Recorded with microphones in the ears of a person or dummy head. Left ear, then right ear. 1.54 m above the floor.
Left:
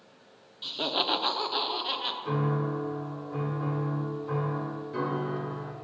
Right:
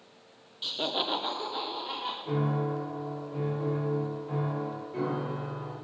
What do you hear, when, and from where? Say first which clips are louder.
0.6 s laughter: left 2 dB; 10° right (ahead or behind), 0.5 m; by 2.1 s 40° left (ahead or behind), 1.3 m
2.2 s a piano: left 1 dB; 55° left (ahead or behind), 1.8 m